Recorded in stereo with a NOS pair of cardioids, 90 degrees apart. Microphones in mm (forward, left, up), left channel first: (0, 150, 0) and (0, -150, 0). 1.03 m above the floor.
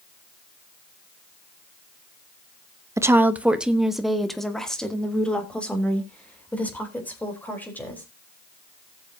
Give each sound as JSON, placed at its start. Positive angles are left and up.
{"t": 3.0, "sound": "a woman speaking", "azimuth_deg": -10, "distance_m": 0.8}